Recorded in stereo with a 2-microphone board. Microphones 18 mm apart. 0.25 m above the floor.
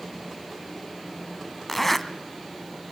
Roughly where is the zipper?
Centre.